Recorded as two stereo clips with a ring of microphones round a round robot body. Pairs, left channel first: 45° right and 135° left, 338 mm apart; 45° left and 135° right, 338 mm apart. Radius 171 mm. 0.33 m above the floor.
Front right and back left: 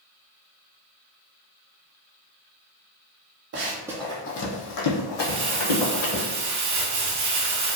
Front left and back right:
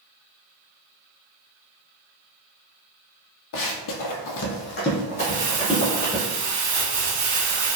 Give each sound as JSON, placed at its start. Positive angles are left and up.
{"t": 3.5, "sound": "running footsteps", "azimuth_deg": 80, "distance_m": 0.6}
{"t": 5.2, "sound": "crumpling", "azimuth_deg": 180, "distance_m": 0.8}